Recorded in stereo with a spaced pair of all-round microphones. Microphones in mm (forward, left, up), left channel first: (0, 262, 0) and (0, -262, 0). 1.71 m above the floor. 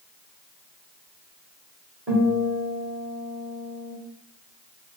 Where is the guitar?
30° right (ahead or behind), 1.2 m.